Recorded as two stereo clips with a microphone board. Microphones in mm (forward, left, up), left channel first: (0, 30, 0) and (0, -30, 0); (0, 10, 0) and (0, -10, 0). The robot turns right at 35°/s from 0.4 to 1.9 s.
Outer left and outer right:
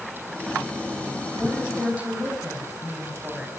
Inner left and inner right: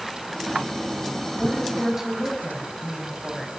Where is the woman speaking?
5° right (ahead or behind), 6 m; by 3.5 s 25° right (ahead or behind), 6 m.